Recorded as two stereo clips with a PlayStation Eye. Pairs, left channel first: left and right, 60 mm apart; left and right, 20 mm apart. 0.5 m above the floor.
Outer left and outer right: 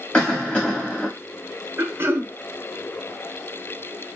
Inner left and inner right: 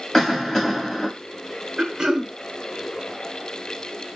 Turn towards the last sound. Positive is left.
turn(degrees=-45)  # may be behind; listen again after turning